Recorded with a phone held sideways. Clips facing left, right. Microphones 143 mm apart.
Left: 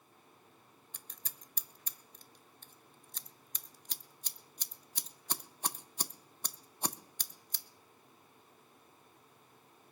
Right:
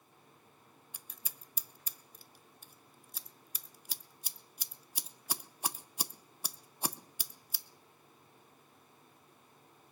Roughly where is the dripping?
No dripping in this recording.